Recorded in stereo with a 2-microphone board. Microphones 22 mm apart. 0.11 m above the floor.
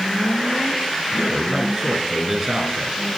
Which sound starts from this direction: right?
A man speaking, at 1.1 s.